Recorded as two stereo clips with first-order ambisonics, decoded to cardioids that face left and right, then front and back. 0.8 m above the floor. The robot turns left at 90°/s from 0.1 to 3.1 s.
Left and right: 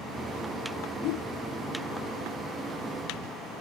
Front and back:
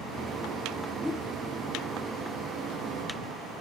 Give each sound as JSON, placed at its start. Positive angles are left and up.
{"t": 1.0, "sound": "a whoosh", "azimuth_deg": 85}